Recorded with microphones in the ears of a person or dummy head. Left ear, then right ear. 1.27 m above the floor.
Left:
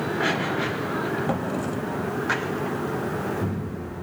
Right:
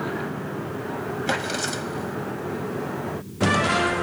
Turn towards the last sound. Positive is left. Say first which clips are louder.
# right 2 dB
turn(degrees=-85)